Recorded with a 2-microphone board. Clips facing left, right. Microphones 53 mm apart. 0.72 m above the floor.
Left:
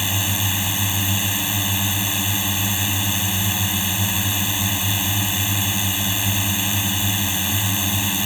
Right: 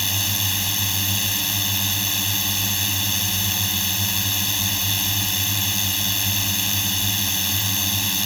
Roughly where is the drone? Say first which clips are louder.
Left 2 dB; centre.